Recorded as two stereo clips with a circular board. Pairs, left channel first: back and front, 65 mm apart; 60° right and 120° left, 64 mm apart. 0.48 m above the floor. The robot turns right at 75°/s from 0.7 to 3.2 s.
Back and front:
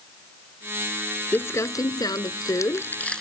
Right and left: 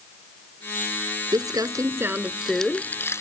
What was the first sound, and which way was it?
Crumpling, 120° left.